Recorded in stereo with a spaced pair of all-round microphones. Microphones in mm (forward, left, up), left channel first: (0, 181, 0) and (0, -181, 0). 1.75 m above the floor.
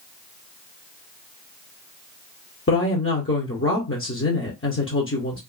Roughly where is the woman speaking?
Left.